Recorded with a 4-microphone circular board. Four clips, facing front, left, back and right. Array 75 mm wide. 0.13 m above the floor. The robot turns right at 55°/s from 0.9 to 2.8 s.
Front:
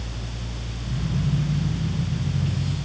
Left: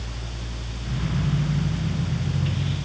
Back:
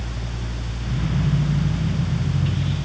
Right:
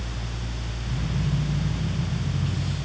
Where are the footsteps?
I don't hear footsteps.